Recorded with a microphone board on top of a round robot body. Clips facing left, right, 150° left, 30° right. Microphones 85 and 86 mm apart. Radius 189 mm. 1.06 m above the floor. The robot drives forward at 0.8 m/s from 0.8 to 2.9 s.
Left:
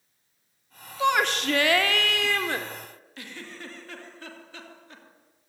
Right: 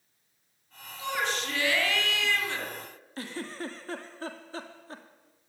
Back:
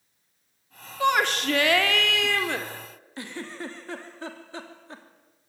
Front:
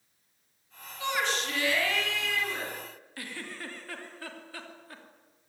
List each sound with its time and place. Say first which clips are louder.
1.0 s a shout: left 8 dB, back 8 dB; 115° left, 2.5 m; by 2.7 s 135° left, 3.5 m
3.2 s a giggle: right 5 dB, back 5 dB; 145° right, 3 m